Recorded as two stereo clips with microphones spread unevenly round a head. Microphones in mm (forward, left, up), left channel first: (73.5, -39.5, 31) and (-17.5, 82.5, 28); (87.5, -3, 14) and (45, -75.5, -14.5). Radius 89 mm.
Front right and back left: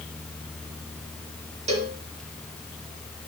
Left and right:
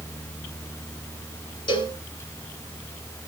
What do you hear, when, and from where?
1.7 s a cowbell: 80° left, 3.5 m